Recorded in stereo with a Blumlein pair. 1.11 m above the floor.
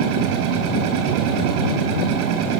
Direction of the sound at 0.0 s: 40° right.